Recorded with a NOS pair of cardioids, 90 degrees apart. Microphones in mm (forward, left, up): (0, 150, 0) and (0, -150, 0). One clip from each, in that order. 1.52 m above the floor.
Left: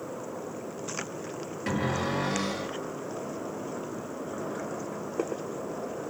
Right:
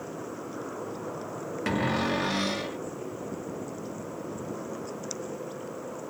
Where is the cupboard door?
35° right, 1.0 m.